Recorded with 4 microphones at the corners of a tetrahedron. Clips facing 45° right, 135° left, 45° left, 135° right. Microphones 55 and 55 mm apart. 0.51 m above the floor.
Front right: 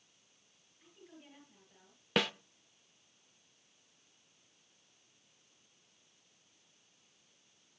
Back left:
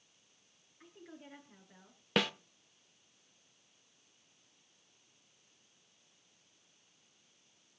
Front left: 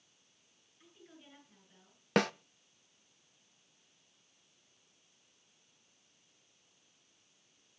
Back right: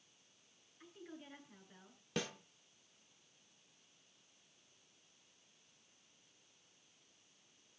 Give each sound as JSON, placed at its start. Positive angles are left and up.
{"t": 0.8, "sound": "a woman speaking", "azimuth_deg": 155, "distance_m": 8.5}
{"t": 2.2, "sound": "a snare drum", "azimuth_deg": 45, "distance_m": 0.6}